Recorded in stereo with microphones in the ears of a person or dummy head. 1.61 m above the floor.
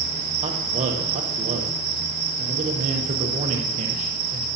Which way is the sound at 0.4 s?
40° right (ahead or behind).